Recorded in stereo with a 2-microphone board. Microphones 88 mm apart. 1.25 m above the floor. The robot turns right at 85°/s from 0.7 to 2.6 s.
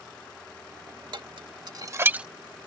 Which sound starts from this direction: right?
Dishes clattering, at 1.1 s.